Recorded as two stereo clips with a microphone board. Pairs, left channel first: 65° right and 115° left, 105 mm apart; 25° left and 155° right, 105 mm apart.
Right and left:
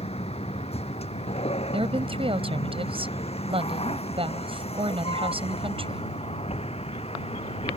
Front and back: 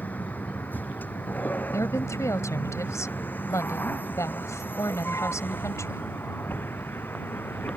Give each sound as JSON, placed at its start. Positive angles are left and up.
{"t": 0.0, "sound": "a vehicle", "azimuth_deg": -50}
{"t": 1.7, "sound": "a woman speaking", "azimuth_deg": 85}